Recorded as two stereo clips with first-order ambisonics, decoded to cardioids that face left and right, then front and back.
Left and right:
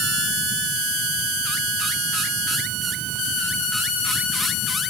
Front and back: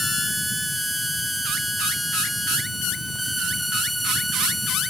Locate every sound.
Only background noise.